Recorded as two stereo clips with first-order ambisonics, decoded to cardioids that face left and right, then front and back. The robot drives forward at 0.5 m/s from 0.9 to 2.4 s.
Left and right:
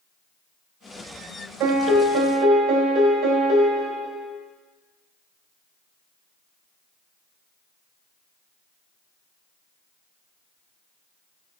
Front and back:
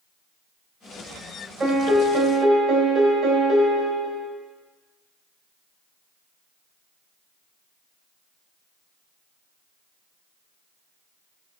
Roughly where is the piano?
Right.